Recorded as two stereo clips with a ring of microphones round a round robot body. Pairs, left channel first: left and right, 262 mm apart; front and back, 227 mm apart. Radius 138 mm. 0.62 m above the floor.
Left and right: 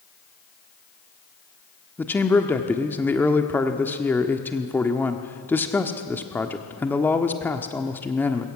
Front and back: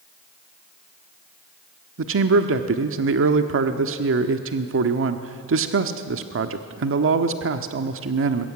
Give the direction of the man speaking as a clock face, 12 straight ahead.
6 o'clock.